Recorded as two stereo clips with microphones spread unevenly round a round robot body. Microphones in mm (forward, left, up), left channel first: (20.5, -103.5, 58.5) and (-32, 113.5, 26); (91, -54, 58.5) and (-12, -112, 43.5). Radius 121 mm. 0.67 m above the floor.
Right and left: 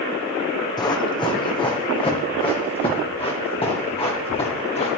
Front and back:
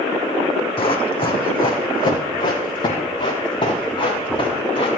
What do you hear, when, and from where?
0.8 s running footsteps: 5° right, 2.5 m; by 4.9 s 10° right, 5.5 m